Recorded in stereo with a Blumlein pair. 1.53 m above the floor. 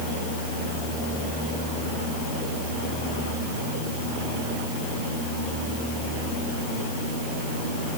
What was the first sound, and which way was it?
Only background noise.